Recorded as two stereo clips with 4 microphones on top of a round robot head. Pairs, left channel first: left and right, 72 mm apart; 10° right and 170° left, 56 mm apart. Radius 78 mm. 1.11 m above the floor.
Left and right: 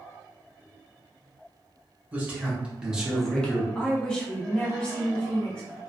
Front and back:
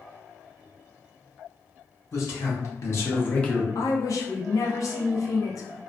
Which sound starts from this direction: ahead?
A woman speaking, at 3.8 s.